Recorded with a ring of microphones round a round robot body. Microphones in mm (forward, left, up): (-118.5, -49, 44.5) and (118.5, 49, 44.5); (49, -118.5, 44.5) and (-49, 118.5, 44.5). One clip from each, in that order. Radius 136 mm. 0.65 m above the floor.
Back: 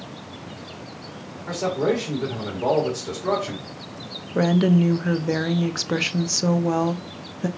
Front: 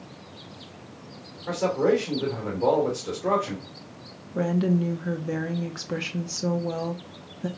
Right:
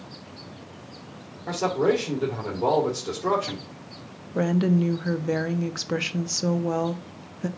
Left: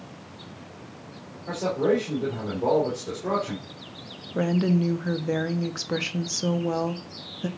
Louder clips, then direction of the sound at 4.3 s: Back 5 dB, right 1 dB; 150° right.